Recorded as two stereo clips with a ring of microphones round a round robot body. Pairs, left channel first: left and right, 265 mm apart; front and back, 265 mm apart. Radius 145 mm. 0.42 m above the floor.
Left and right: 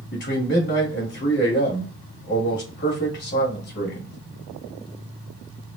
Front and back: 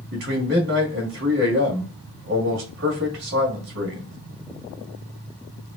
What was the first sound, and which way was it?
A man speaking, 135° left.